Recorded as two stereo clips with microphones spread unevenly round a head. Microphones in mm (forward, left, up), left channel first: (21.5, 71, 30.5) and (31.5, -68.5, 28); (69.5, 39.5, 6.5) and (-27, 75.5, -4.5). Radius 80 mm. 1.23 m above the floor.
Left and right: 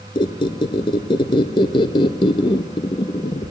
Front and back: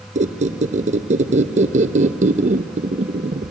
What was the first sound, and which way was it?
A squeak, 160° left.